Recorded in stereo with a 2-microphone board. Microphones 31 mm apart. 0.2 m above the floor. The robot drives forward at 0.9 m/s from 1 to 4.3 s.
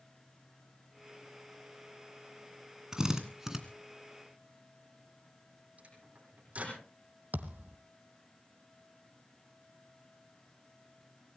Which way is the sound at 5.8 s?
50° right (ahead or behind).